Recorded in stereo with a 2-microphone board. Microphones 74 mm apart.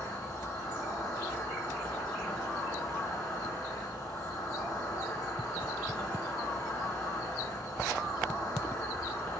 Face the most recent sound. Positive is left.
turn(degrees=50)  # may be behind; listen again after turning